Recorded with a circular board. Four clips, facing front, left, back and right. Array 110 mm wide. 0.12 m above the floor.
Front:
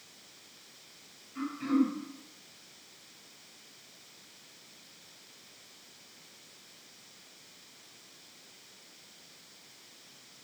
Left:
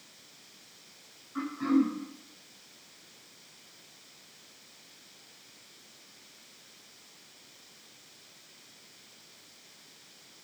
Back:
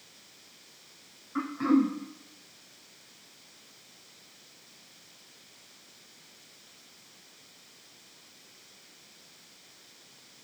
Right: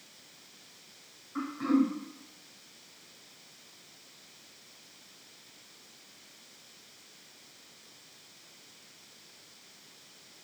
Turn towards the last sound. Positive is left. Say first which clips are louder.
# left 1 dB, back 4 dB
turn(degrees=-170)